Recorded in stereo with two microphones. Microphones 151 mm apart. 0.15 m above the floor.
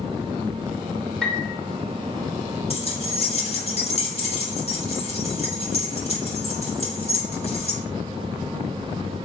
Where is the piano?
5° left (ahead or behind), 1.5 m.